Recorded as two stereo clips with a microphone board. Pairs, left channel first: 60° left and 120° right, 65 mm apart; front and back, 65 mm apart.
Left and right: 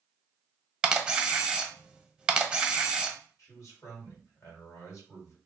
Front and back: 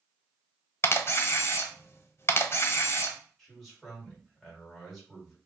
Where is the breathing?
I don't hear breathing.